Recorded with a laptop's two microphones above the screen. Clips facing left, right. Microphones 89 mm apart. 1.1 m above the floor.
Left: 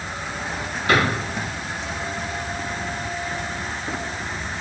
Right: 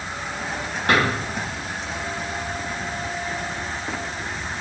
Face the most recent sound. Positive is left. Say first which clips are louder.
# even
turn(degrees=-75)  # may be behind; listen again after turning